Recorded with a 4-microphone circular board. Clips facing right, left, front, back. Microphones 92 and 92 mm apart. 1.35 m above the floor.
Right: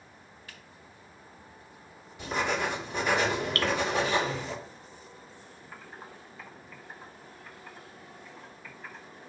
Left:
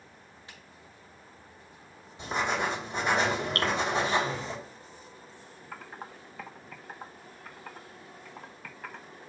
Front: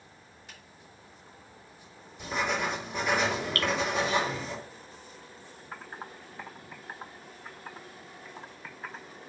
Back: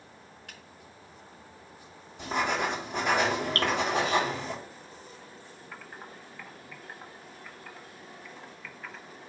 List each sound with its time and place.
0.5 s a finger snap: 155° left, 4 m
2.2 s writing: 155° left, 4 m
3.5 s dripping: 140° left, 1.8 m
5.7 s typing on a keyboard: 60° left, 1.0 m